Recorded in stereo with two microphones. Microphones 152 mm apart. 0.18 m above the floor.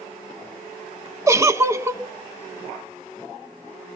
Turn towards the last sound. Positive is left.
turn(degrees=-20)  # may be behind; listen again after turning